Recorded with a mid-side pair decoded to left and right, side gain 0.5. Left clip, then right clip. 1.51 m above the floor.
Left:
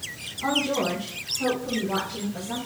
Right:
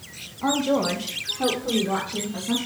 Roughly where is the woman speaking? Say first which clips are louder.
Right 2 dB; ahead right.